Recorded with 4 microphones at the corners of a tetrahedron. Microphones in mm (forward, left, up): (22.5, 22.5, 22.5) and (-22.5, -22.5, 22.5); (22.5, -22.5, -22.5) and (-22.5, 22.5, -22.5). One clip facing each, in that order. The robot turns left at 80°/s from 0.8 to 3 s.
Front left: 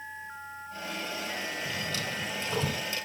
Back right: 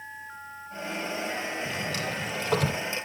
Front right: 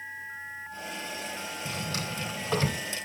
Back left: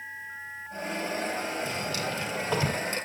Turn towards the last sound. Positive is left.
turn(degrees=175)